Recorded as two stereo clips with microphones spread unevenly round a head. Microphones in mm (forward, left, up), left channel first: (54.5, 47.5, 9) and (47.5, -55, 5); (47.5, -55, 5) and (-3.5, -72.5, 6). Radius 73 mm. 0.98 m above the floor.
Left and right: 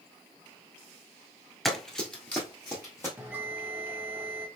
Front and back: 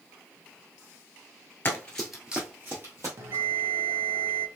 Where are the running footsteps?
5° left, 1.0 m; by 3.1 s 160° left, 1.7 m.